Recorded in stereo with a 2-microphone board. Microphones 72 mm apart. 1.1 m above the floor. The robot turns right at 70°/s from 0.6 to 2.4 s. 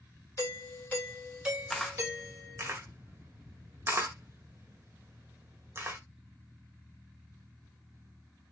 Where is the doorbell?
135° left, 1.9 m; by 2.7 s 100° right, 1.9 m.